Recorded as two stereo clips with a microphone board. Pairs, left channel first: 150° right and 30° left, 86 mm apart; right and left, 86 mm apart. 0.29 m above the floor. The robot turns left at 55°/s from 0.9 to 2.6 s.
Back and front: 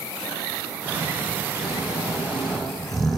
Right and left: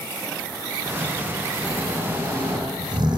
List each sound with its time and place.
1.6 s snoring: 175° left, 10 m; by 3.2 s 120° left, 10 m